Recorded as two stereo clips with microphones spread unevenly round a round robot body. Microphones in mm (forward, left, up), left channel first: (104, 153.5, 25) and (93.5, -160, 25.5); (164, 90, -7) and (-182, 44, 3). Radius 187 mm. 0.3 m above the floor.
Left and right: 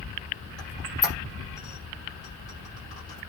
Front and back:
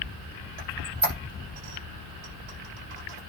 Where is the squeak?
Straight behind, 7.5 m.